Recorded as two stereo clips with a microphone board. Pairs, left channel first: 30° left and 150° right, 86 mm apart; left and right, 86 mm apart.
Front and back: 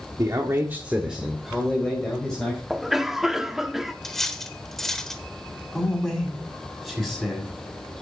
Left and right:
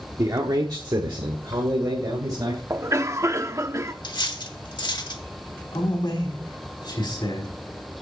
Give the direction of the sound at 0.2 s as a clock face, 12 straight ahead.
4 o'clock.